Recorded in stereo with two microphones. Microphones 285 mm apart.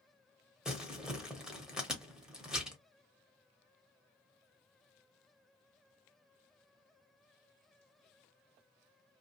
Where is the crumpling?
Centre (ahead or behind), 0.9 m.